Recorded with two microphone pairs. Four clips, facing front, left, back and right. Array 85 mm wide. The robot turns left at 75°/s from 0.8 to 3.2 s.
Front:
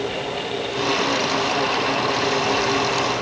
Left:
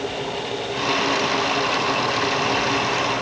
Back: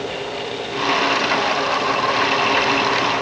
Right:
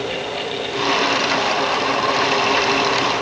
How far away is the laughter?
I don't hear laughter.